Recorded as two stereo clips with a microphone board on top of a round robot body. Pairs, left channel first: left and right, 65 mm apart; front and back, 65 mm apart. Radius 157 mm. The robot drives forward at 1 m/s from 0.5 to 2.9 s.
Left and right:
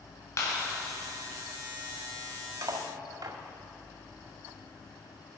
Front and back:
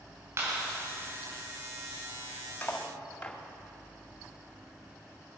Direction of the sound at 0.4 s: 135° left.